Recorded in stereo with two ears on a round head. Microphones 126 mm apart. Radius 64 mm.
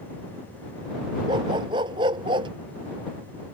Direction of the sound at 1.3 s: 30° right (ahead or behind).